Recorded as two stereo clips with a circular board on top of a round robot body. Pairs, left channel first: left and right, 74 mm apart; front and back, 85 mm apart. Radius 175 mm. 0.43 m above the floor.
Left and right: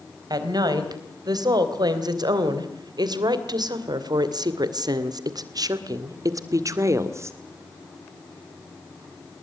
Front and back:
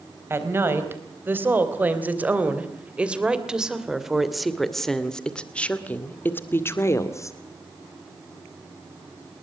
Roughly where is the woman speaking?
Behind right.